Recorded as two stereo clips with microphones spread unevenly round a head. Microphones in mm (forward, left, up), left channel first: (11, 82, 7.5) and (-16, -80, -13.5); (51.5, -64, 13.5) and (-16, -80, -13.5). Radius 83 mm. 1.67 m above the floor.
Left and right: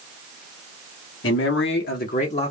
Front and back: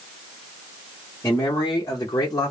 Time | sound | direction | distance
1.2 | a man speaking | 75° left | 0.8 m